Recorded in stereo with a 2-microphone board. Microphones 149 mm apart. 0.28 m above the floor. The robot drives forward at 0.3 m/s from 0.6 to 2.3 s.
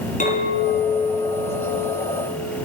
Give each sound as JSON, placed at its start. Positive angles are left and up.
{"t": 0.2, "sound": "a clink", "side_deg": 60, "distance_m": 1.8}